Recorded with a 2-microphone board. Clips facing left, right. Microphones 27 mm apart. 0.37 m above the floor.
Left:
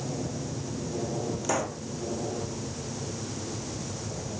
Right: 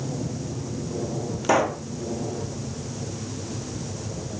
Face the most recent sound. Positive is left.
turn(degrees=-30)  # may be behind; listen again after turning